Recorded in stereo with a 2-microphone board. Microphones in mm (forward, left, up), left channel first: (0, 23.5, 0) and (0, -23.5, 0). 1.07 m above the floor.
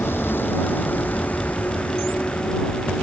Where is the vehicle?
55° left (ahead or behind); by 3.0 s 25° left (ahead or behind).